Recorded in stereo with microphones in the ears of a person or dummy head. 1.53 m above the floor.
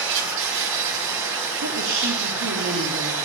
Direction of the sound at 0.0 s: 65° right (ahead or behind).